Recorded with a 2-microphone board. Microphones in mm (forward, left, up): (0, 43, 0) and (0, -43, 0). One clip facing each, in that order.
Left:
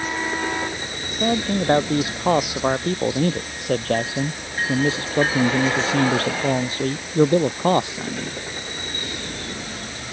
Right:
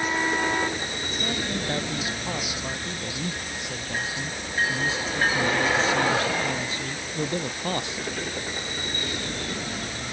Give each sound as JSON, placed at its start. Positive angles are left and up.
{"t": 1.2, "sound": "a man speaking", "side_deg": 50}